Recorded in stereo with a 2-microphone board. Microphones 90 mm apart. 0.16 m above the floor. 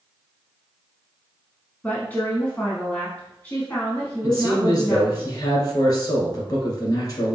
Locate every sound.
1.8 s a woman speaking: 20° left (ahead or behind), 1.1 m
4.2 s a man speaking: 40° left (ahead or behind), 2 m